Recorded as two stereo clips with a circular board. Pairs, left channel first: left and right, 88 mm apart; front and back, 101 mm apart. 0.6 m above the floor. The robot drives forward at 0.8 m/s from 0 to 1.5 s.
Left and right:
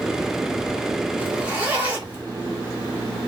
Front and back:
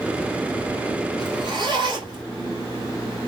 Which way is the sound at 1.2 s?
155° right.